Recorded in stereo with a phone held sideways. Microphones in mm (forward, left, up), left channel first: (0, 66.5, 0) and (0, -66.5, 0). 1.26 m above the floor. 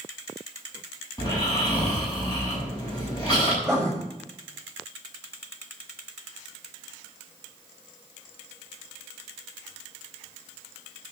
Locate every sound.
1.2 s snoring: 30° left (ahead or behind), 7 m
3.6 s writing: 5° left (ahead or behind), 6.5 m